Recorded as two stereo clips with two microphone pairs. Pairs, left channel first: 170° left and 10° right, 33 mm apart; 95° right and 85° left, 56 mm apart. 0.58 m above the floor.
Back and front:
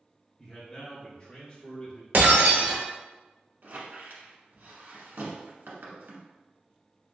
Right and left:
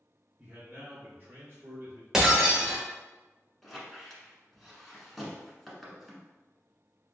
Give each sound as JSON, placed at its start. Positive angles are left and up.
{"t": 0.4, "sound": "a man speaking", "azimuth_deg": 100, "distance_m": 1.1}
{"t": 2.1, "sound": "breaking glass", "azimuth_deg": 5, "distance_m": 1.1}
{"t": 3.6, "sound": "a squeak", "azimuth_deg": -10, "distance_m": 1.1}